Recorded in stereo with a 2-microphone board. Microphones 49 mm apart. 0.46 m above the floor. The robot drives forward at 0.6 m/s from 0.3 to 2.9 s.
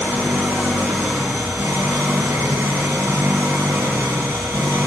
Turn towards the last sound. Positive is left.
turn(degrees=-80)